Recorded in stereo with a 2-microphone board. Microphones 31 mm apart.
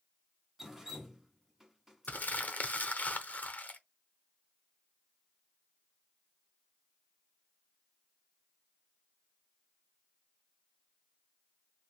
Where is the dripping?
10° right (ahead or behind), 0.9 m.